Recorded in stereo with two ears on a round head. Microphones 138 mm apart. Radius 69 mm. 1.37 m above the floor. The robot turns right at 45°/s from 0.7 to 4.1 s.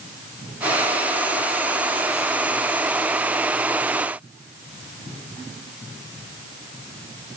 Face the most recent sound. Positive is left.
No sound to turn to.